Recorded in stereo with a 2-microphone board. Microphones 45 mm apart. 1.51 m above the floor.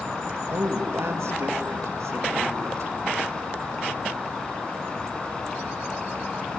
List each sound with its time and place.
0.5 s a woman speaking: 60° right (ahead or behind), 2 m; by 2.9 s 90° right, 3.5 m